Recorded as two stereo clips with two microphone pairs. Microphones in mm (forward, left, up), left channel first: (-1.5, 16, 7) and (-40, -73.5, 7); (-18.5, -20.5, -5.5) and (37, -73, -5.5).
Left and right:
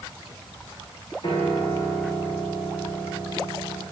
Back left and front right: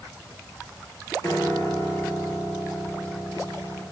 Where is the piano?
95° left, 4.5 m.